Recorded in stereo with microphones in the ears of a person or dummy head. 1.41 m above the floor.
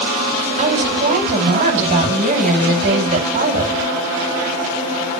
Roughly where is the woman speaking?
Right.